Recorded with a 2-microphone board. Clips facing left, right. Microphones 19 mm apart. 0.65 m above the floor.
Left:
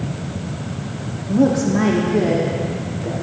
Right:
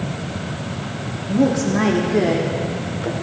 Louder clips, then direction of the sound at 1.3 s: Left 2 dB; 10° left (ahead or behind).